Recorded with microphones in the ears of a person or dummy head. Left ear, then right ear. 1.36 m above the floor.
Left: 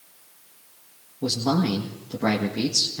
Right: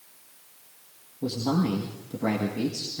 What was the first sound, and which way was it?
A man speaking, 25° left (ahead or behind).